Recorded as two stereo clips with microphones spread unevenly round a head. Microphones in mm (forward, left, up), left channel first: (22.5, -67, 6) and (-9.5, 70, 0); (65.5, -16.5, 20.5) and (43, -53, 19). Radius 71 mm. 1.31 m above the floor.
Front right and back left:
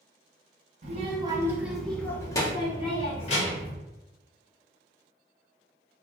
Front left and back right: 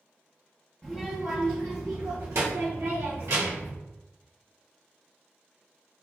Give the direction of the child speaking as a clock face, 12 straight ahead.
7 o'clock.